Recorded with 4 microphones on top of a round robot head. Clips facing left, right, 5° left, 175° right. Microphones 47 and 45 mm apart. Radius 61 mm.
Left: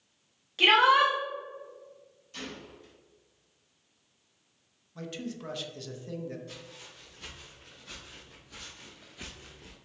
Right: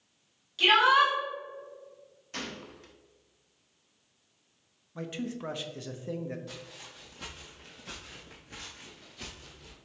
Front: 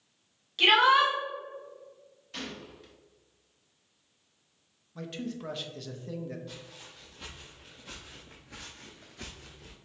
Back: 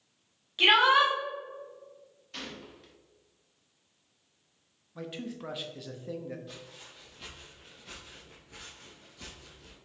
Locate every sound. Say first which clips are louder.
0.6 s a shout: left 1 dB, even; 120° left, 1.0 m
2.3 s a gunshot: right 2 dB, front 2 dB; 85° right, 0.7 m
5.0 s a man speaking: right 2 dB, front 1 dB; 110° right, 0.6 m
6.5 s footsteps: right 1 dB, front 1 dB; 95° right, 1.6 m; by 9.8 s 50° left, 0.8 m